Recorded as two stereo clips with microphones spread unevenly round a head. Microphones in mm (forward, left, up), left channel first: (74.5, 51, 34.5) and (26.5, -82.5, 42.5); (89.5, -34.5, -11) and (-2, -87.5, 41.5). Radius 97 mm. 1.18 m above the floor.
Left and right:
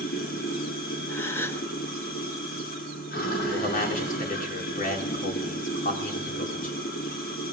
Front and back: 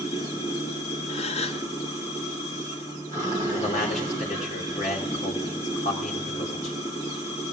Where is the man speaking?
45° left, 3 m.